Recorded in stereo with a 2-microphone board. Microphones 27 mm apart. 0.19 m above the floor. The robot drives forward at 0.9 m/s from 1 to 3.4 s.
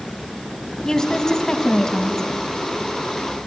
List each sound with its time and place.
0.8 s a woman speaking: 20° left (ahead or behind), 1.8 m